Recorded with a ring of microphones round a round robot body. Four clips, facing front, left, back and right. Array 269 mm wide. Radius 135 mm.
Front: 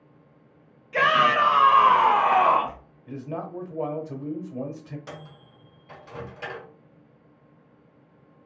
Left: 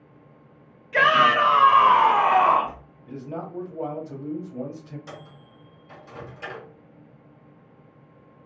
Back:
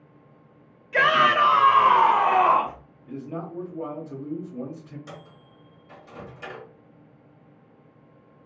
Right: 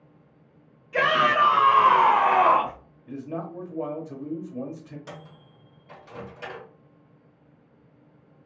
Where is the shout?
135° left, 1.0 m; by 2.8 s 80° right, 1.1 m.